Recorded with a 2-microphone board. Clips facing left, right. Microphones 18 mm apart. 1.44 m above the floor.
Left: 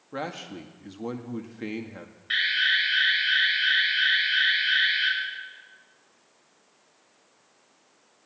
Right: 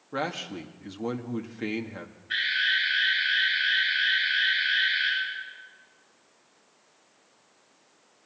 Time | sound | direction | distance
0.1 | a man speaking | 10° right (ahead or behind) | 1.9 m
2.3 | an alarm | 70° left (ahead or behind) | 9.5 m